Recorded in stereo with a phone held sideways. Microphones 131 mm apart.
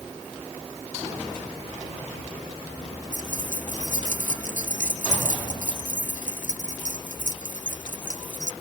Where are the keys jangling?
75° left (ahead or behind).